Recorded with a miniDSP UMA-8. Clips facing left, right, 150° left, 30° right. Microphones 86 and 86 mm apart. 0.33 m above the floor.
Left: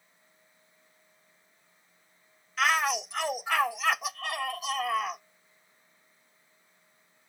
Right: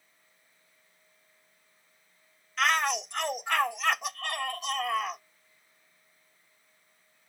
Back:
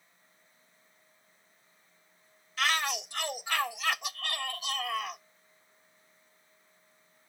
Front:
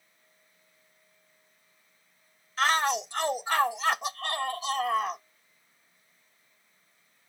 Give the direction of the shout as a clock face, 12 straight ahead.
12 o'clock.